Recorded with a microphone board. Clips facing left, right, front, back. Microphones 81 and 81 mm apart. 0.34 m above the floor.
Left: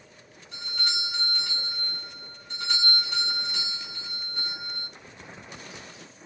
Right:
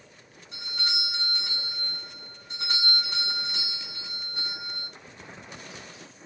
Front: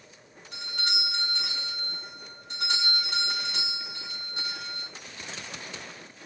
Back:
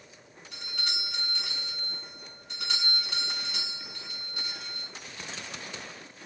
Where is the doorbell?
25° right, 2.5 m.